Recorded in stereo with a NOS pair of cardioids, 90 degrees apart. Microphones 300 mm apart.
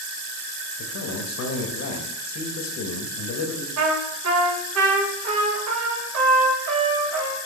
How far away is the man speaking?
About 1.1 m.